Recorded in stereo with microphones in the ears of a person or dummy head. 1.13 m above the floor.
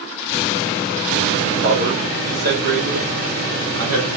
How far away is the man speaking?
About 2.5 m.